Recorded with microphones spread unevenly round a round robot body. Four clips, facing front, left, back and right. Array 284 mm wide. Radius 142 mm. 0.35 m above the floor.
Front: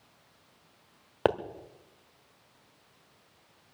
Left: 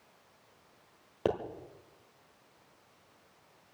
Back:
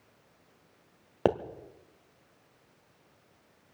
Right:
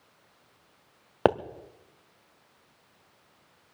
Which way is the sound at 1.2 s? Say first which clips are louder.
Right 8 dB, even; 75° right.